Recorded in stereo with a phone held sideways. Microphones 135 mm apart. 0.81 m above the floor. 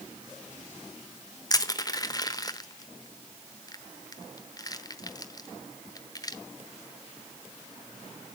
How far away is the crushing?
About 0.9 m.